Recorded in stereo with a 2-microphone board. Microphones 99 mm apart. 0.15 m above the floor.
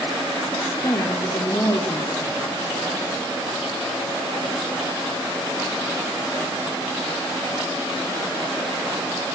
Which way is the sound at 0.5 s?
30° left (ahead or behind).